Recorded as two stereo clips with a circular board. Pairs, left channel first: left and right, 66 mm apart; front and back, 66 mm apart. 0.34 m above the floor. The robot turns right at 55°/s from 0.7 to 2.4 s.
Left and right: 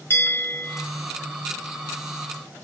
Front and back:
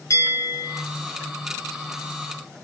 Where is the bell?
40° left, 4.5 m; by 0.8 s 45° left, 4.5 m.